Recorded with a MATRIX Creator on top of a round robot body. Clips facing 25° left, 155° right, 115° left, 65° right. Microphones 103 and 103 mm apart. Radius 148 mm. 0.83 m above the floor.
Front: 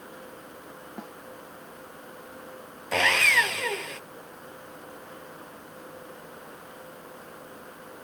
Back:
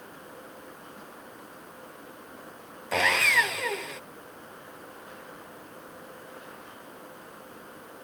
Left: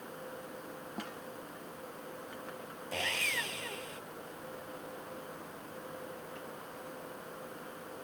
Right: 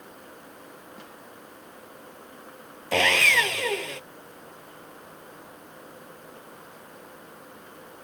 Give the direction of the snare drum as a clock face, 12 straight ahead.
10 o'clock.